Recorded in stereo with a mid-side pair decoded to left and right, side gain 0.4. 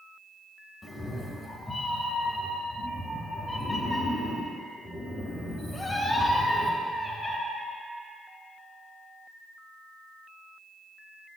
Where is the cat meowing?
30° left, 1.5 m.